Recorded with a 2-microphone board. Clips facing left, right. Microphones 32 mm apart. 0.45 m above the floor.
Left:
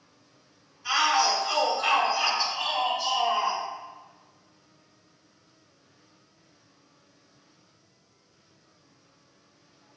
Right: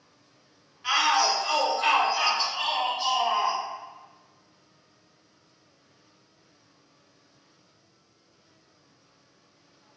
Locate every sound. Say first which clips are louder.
0.8 s a shout: even; 55° right (ahead or behind), 2 m; by 3.6 s 20° right (ahead or behind), 1.3 m